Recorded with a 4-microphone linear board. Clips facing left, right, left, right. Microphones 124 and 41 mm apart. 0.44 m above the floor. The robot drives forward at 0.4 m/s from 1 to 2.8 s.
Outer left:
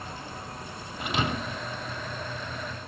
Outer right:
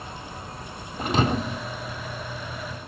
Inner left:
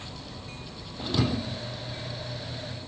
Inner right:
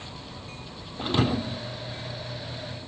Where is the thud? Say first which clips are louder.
Outer right 6 dB, inner right 3 dB; 40° right (ahead or behind), 0.9 m; by 1.6 s 30° right (ahead or behind), 1.1 m.